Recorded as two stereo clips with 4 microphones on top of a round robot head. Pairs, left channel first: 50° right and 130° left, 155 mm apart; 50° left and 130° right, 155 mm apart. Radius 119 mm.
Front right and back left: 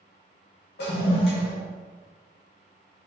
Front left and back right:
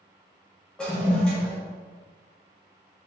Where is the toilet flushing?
35° right, 1.0 m.